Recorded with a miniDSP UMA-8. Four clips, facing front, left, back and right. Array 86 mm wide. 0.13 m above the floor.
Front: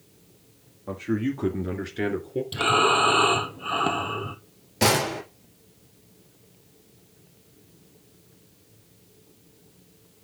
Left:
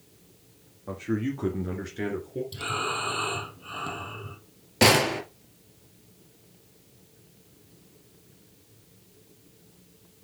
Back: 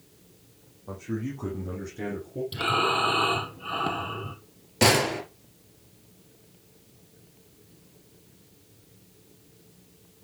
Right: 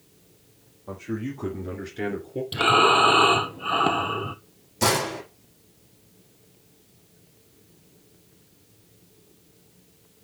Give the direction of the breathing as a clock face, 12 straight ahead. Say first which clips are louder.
Right 16 dB, front 5 dB; 2 o'clock.